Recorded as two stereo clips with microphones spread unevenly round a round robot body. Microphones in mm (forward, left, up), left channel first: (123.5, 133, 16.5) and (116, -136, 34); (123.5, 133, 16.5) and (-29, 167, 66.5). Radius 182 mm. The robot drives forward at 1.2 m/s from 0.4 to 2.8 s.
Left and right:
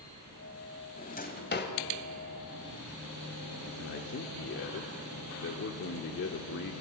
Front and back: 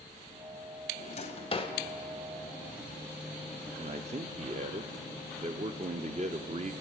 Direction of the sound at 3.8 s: 110° left.